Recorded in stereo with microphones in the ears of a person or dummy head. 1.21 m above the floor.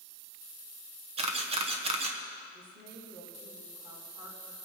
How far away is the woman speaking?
About 2.5 m.